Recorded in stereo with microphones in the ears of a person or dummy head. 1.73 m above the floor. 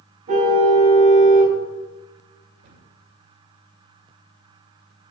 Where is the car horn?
45° right (ahead or behind), 4 m.